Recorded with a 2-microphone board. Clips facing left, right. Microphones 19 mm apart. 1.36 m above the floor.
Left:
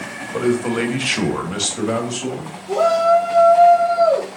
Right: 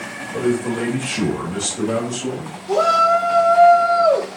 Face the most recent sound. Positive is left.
turn(degrees=-50)  # may be behind; listen again after turning